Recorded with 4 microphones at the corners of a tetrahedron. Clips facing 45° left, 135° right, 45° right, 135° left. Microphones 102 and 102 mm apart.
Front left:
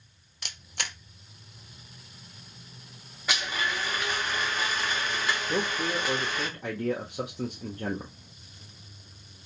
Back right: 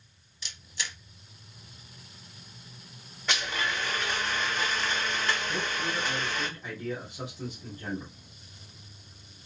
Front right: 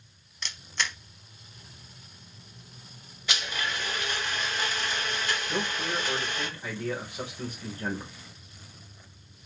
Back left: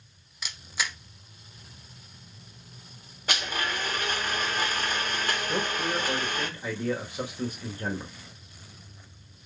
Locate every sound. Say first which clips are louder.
0.4 s a camera shutter: front left 2 dB, even; 50° left, 0.7 m
3.3 s a blender: front left 1 dB, back left 2 dB; 125° left, 1.7 m
5.5 s a man speaking: front left 3 dB, back left 3 dB; 60° left, 1.4 m